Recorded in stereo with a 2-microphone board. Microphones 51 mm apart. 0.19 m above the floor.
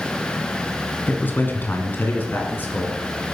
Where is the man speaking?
35° left (ahead or behind), 1.9 m; by 3.0 s 40° left (ahead or behind), 3 m.